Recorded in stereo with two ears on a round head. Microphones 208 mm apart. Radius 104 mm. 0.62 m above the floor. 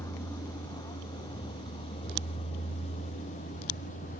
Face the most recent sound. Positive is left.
turn(degrees=35)  # may be behind; listen again after turning